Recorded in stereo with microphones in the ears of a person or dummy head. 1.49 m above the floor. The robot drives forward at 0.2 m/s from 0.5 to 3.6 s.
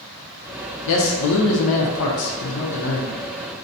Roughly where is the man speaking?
Left.